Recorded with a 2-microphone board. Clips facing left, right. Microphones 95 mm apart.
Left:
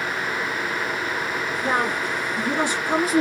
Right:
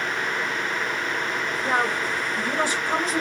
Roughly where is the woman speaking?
Left.